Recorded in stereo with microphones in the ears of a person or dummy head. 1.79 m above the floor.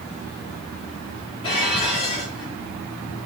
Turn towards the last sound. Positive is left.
turn(degrees=30)  # may be behind; listen again after turning